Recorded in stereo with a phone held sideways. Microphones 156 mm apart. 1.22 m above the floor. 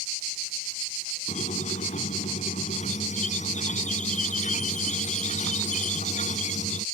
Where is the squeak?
55° left (ahead or behind).